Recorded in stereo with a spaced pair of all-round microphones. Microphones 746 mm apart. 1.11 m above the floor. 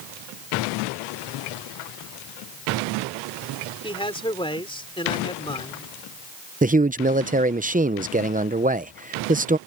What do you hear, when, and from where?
3.8 s a man speaking: 5° left (ahead or behind)
6.6 s a man speaking: 10° right (ahead or behind)